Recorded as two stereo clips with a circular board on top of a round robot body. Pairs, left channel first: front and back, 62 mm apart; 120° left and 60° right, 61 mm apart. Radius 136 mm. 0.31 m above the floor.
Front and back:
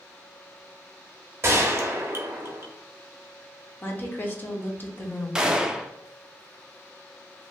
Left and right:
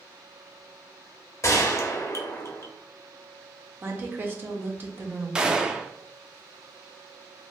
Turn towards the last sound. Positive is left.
turn(degrees=-115)